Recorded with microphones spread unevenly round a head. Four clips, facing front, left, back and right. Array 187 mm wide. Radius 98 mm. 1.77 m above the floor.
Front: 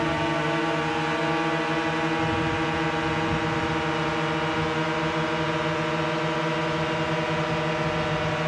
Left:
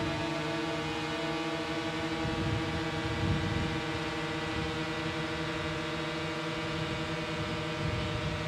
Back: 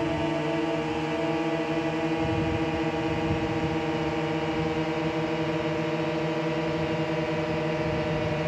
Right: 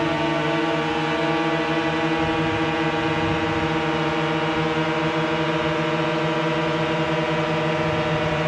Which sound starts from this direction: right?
A drone, at 0.0 s.